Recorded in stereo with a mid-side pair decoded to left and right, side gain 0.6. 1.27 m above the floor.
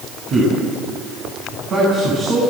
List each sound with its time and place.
0.3 s a man speaking: 40° right, 8.5 m